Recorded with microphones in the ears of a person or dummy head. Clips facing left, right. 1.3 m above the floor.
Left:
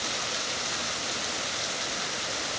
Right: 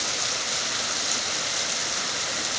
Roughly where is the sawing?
I don't hear sawing.